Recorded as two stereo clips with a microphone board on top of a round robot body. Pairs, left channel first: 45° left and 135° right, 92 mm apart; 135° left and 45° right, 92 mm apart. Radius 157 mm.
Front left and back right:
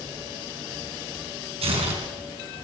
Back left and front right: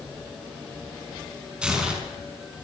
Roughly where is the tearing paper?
Behind right.